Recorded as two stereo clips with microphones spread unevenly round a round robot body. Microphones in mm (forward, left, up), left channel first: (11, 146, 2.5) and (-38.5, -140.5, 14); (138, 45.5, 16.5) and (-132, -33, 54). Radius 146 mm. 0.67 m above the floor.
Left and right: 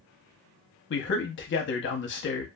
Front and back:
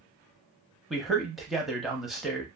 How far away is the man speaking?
About 0.7 m.